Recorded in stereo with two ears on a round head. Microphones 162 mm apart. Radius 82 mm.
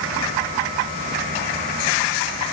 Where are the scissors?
No scissors in this recording.